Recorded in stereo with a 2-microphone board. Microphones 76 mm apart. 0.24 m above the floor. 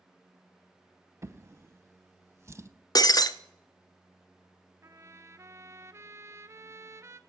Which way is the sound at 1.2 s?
35° right (ahead or behind).